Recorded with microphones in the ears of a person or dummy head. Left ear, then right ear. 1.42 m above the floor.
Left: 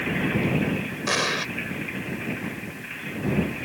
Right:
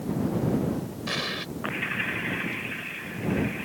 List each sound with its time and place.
1.1 s an explosion: 35° left (ahead or behind)